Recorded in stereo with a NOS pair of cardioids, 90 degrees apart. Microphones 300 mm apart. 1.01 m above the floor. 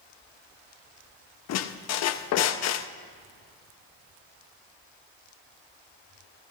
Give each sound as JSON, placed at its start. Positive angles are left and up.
{"t": 1.5, "sound": "a squeak", "azimuth_deg": 60, "distance_m": 0.7}